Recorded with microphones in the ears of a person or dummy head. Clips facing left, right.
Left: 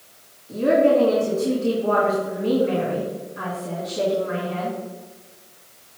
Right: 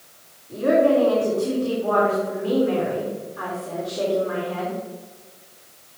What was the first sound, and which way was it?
A woman speaking, 75° left (ahead or behind).